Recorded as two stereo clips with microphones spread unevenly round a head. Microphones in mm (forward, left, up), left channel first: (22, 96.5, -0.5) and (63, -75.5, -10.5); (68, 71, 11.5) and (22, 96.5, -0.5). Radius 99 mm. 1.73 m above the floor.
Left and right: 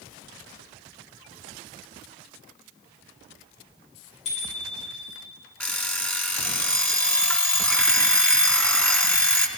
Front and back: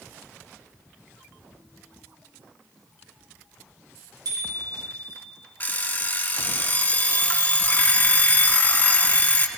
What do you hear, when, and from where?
4.2 s a bicycle bell: 165° left, 8 m
5.6 s an alarm clock: 25° left, 3 m